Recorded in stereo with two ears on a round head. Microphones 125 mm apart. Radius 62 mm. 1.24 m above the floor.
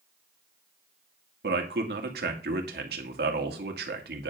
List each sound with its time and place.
1.4 s a man speaking: 80° right, 2.5 m